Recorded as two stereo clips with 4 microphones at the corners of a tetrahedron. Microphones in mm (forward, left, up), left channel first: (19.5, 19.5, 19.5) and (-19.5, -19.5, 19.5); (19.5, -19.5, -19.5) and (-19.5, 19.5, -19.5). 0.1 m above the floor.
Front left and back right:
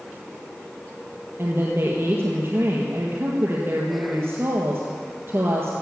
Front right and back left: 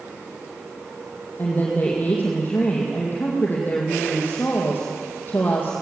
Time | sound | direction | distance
1.4 | a woman speaking | 100° right | 3.5 m